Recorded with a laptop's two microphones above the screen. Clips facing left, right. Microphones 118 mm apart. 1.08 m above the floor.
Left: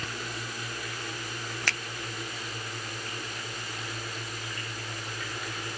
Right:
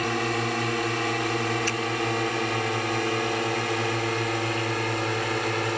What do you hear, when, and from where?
0.0 s a drone: 70° right (ahead or behind); by 5.8 s 65° right (ahead or behind)
1.7 s a finger snap: 75° left (ahead or behind)